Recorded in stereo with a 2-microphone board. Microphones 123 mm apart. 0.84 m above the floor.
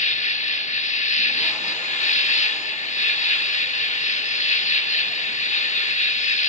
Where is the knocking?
No knocking in this recording.